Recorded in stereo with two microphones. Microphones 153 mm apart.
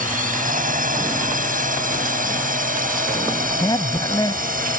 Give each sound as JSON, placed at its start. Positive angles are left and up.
{"t": 0.0, "sound": "a drone", "side_deg": -60}
{"t": 3.6, "sound": "a man speaking", "side_deg": 25}